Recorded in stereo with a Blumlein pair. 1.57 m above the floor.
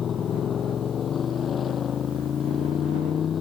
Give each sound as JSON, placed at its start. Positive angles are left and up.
{"t": 0.0, "sound": "a motorcycle", "azimuth_deg": 20}